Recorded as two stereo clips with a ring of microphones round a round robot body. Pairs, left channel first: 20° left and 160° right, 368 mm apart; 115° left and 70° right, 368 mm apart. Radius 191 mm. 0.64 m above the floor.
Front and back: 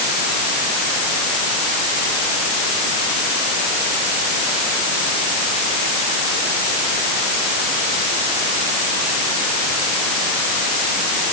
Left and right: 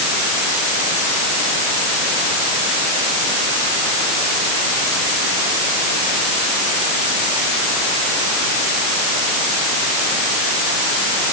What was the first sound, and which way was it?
Only background noise.